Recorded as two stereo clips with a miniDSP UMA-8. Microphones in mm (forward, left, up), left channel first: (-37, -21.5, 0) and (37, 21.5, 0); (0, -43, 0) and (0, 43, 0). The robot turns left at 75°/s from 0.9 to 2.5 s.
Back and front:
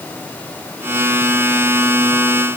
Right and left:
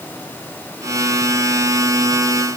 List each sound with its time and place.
Only background noise.